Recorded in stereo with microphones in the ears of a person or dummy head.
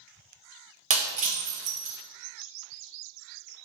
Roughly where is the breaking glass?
Right.